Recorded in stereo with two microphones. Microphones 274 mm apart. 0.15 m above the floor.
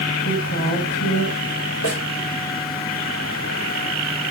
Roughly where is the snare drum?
Left.